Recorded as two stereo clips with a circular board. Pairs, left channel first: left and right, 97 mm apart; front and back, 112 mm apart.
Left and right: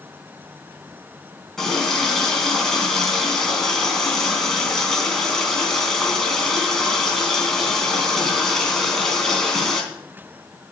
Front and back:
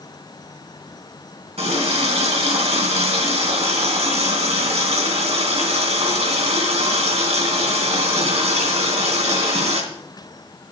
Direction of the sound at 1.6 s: 175° left.